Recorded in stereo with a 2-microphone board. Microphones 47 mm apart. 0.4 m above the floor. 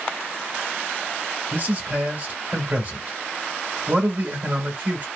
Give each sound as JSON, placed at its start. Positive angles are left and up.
{"t": 1.5, "sound": "a man speaking", "side_deg": -40, "distance_m": 1.5}